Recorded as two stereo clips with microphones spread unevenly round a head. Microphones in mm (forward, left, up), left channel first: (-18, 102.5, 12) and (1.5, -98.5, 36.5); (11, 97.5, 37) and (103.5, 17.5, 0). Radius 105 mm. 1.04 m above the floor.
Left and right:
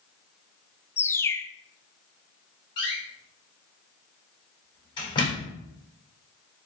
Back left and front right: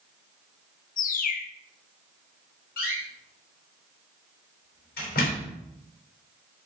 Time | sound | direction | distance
1.0 | a bird | 170° left | 0.6 m
2.8 | a door slam | 165° left | 3.5 m